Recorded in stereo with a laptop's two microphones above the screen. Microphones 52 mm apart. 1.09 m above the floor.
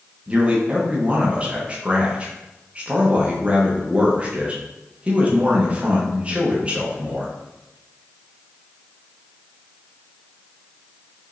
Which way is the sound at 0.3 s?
25° right (ahead or behind).